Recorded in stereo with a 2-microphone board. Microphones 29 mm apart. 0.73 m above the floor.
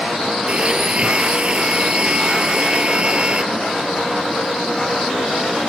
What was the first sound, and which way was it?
A blender, 35° right (ahead or behind).